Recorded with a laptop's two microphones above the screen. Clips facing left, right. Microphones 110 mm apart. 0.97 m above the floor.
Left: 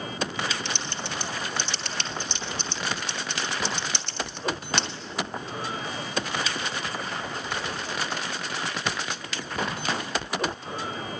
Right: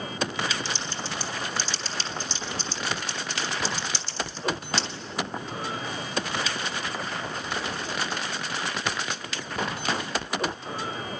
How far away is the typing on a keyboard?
About 1.3 m.